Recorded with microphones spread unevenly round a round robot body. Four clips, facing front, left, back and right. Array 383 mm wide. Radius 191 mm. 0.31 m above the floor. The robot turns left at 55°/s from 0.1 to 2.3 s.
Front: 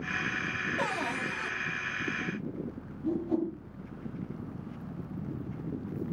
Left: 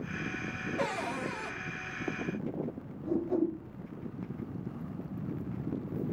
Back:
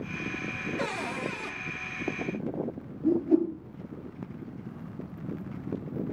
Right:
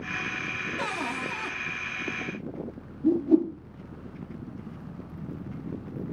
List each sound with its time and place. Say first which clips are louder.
0.8 s a cupboard door: right 1 dB, even; 25° right, 2 m; by 1.5 s 70° right, 2 m
3.0 s a whoosh: right 8 dB, back 6 dB; 100° right, 4 m